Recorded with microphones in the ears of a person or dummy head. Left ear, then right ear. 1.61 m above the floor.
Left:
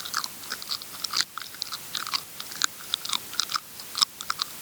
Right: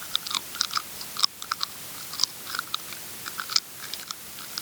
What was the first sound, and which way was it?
Only background noise.